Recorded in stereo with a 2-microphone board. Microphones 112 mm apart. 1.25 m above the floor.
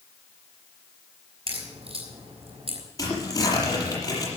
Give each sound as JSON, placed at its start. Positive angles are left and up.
{"t": 1.5, "sound": "a crack", "side_deg": -55, "distance_m": 5.0}
{"t": 3.0, "sound": "tearing paper", "side_deg": 30, "distance_m": 6.0}